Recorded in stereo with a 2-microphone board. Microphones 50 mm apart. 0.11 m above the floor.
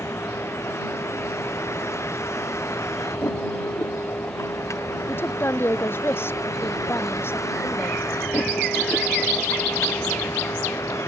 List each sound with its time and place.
0.0 s a vehicle: 55° left (ahead or behind); by 11.1 s 70° left (ahead or behind)
5.1 s a woman speaking: 50° left (ahead or behind)